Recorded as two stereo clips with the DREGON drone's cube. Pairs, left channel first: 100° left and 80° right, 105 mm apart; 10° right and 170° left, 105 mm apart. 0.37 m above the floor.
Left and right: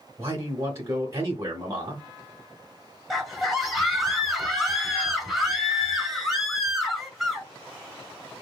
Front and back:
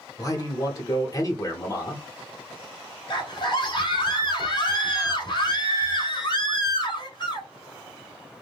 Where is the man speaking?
40° right, 1.2 m.